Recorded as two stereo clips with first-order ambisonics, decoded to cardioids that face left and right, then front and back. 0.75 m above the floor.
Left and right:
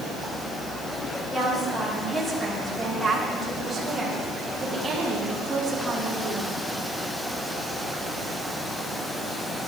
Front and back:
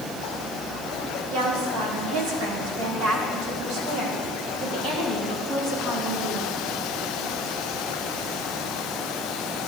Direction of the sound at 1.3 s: 165° left.